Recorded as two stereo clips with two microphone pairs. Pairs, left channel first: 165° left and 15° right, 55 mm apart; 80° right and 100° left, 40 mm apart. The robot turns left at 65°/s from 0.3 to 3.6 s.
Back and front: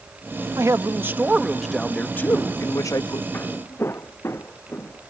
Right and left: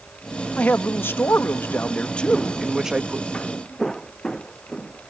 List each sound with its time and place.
0.6 s a man speaking: 35° right; by 3.2 s 150° left
3.3 s footsteps: 145° right; by 5.1 s 150° right